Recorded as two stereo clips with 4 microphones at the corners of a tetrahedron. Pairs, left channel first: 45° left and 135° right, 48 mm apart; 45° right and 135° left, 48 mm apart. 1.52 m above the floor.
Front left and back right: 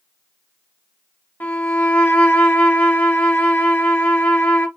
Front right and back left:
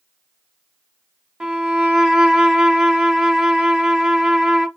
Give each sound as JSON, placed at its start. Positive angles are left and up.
{"t": 1.4, "sound": "a violin", "azimuth_deg": 60, "distance_m": 0.8}